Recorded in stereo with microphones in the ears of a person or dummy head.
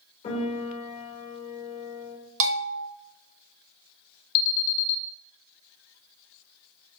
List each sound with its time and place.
0.2 s a piano: 45° left (ahead or behind), 4 m
2.4 s a bell: 75° right (ahead or behind), 1.2 m
4.3 s an alarm: 80° left, 0.8 m